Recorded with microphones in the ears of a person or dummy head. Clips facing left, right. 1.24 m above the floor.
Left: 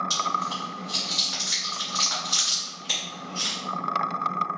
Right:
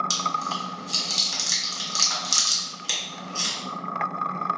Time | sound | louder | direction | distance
0.1 | chewing | even | 70° right (ahead or behind) | 1.4 m